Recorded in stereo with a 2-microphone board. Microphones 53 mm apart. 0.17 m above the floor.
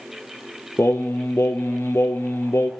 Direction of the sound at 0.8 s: 60° left (ahead or behind).